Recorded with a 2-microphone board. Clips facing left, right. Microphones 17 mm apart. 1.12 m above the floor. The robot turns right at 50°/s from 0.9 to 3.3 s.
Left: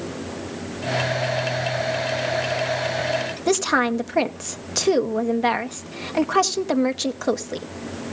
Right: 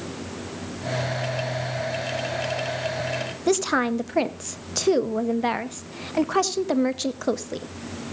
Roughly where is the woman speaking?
Centre.